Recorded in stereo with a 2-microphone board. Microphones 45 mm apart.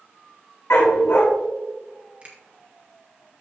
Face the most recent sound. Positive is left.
turn(degrees=-25)  # may be behind; listen again after turning